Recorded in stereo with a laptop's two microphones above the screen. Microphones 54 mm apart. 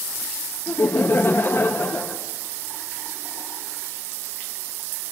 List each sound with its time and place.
0.7 s laughter: 55° left (ahead or behind), 1.2 m